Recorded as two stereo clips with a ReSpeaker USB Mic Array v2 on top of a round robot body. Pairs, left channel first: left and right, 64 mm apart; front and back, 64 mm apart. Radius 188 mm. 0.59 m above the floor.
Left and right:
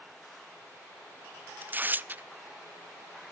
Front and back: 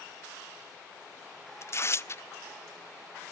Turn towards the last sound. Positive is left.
turn(degrees=-35)